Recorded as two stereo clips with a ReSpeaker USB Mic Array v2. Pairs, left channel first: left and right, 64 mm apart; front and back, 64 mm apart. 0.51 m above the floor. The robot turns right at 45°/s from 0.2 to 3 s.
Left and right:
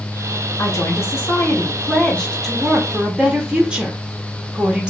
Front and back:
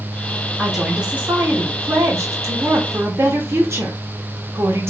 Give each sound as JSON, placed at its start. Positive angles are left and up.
{"t": 0.6, "sound": "a woman speaking", "azimuth_deg": 90, "distance_m": 0.9}